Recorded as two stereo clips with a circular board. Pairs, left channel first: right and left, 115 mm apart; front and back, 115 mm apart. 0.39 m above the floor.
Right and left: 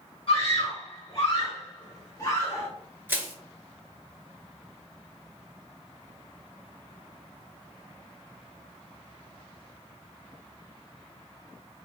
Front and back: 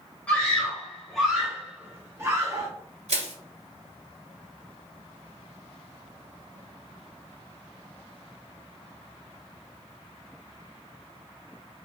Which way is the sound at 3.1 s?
160° left.